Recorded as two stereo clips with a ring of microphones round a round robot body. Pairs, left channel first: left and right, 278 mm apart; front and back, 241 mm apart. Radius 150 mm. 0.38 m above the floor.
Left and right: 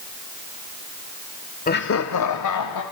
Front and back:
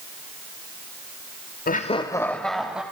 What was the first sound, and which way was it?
Laughter, 40° left.